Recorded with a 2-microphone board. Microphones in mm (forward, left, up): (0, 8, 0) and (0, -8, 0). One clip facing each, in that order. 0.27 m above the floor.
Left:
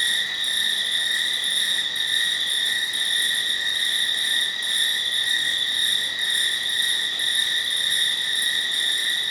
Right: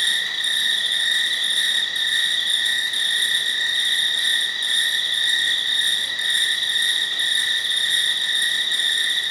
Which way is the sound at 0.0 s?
45° right (ahead or behind).